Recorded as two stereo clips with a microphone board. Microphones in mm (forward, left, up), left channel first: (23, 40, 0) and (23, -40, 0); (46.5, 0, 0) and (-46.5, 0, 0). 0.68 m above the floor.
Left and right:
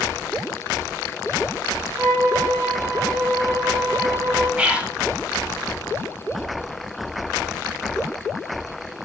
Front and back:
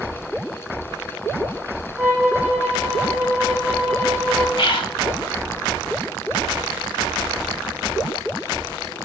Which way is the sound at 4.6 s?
20° right.